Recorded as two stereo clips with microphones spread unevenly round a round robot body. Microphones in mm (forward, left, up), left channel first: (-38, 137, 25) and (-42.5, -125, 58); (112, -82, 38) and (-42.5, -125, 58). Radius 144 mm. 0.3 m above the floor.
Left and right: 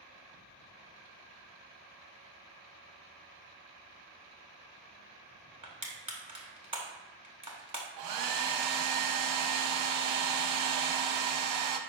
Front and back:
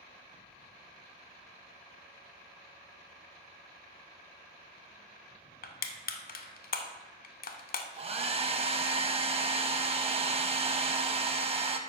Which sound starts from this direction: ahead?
Crushing, at 5.6 s.